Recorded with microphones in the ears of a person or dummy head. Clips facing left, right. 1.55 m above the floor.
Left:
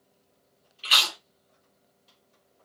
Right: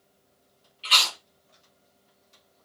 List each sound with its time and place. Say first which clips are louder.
0.8 s chewing: right 1 dB; 15° left (ahead or behind), 0.8 m